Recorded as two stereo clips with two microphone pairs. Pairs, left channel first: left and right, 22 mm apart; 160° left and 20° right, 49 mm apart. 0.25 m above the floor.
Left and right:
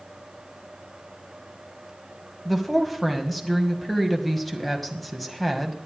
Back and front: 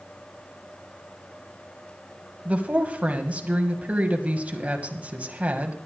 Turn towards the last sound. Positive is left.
turn(degrees=5)